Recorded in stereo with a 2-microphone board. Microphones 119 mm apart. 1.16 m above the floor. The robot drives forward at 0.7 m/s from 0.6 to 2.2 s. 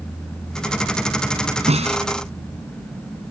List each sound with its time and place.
1.7 s a snare drum: 70° right (ahead or behind); by 2.0 s 75° right (ahead or behind)